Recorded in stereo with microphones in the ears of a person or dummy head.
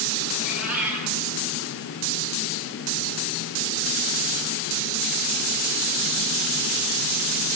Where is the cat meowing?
10° right (ahead or behind), 5 m.